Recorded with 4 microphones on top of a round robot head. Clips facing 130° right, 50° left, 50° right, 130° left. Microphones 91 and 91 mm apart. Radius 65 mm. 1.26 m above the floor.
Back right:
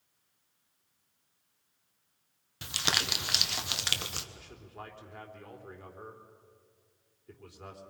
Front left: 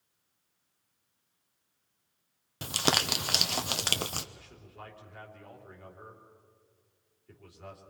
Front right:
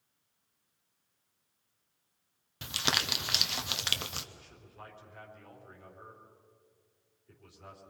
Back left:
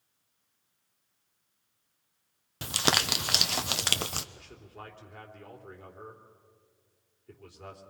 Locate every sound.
2.6 s crumpling: 90° left, 0.9 m
4.3 s a man speaking: 170° left, 3 m